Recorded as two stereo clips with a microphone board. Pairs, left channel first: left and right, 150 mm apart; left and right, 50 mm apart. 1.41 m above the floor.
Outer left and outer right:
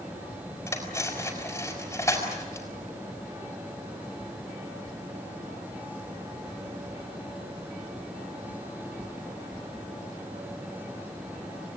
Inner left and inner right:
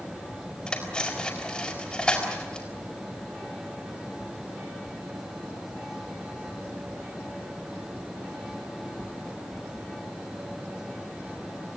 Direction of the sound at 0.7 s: 15° left (ahead or behind).